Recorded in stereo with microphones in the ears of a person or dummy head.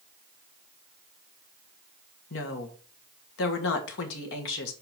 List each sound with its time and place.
2.3 s a woman speaking: 75° left (ahead or behind), 1.7 m